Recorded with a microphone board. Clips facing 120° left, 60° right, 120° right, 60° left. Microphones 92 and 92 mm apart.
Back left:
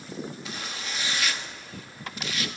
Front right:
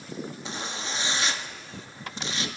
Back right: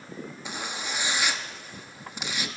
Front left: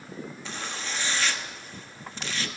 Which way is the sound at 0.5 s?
60° right.